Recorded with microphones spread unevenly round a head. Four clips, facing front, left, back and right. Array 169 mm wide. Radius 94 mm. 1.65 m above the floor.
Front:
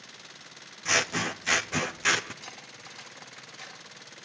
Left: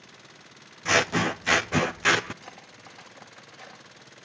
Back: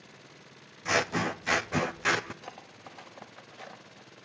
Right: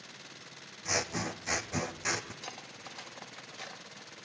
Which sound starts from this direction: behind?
Cutlery clinking, at 2.4 s.